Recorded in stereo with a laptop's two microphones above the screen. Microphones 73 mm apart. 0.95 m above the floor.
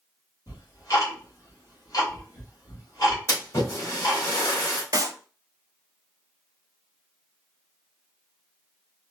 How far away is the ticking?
About 2 m.